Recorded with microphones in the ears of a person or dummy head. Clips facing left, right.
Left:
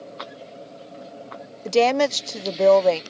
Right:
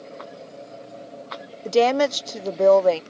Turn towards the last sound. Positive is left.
turn(degrees=-10)  # may be behind; listen again after turning